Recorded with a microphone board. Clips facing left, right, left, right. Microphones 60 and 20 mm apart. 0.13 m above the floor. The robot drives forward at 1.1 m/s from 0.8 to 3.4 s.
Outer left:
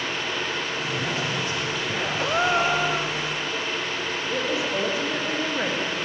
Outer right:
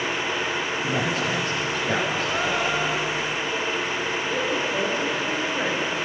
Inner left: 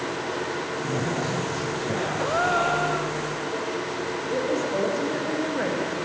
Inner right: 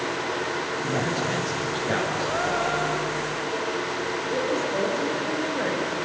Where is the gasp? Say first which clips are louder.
Outer left 2 dB, inner left 2 dB; 25° left (ahead or behind), 3 m; by 3.2 s 35° left (ahead or behind), 2 m.